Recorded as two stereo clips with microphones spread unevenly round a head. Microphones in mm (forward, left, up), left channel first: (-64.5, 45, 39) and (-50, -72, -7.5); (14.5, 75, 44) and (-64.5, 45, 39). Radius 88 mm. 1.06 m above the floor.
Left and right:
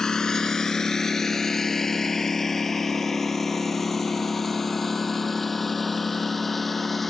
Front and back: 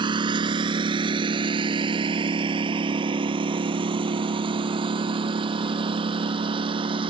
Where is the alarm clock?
I don't hear an alarm clock.